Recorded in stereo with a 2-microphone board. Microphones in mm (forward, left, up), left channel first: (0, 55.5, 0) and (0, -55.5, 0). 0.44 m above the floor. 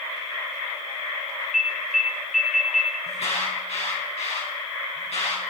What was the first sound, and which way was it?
An alarm, centre (ahead or behind).